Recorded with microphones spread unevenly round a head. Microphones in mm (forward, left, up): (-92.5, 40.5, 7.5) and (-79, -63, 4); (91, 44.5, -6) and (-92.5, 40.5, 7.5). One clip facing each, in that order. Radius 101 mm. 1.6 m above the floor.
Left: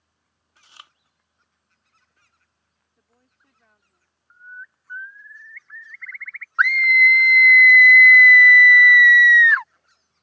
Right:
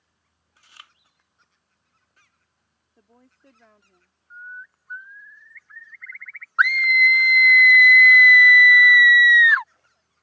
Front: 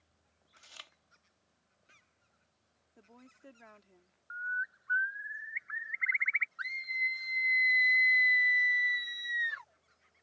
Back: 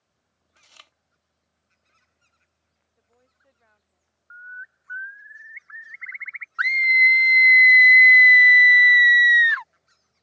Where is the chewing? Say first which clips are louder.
Left 1 dB, even; 90° left.